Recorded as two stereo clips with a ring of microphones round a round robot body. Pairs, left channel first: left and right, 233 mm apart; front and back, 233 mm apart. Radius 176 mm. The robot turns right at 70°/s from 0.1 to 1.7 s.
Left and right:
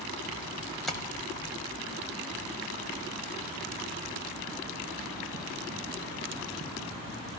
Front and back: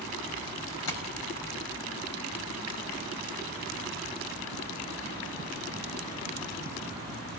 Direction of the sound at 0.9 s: Straight ahead.